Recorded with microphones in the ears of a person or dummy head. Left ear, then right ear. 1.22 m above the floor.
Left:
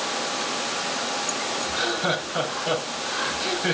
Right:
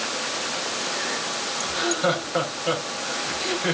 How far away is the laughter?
About 6 m.